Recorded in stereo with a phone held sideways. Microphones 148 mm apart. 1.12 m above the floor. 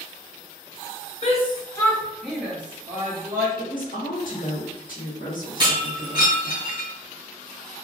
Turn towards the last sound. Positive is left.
turn(degrees=-35)  # may be behind; listen again after turning